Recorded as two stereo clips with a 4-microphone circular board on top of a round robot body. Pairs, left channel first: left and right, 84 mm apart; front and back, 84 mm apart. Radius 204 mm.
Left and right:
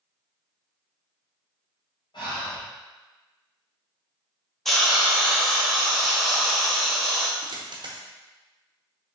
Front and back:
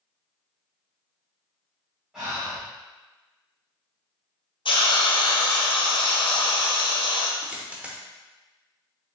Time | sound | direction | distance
2.1 | breathing | 100° left | 1.9 m
4.7 | a hiss | 5° left | 0.9 m
7.4 | a dropped coin | 105° right | 0.9 m